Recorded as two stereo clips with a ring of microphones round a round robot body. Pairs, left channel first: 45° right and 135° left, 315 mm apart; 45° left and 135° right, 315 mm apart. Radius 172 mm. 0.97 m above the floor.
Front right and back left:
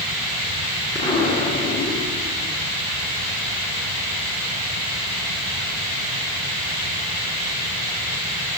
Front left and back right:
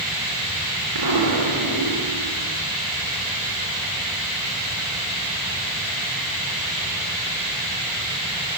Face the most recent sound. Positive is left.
turn(degrees=-120)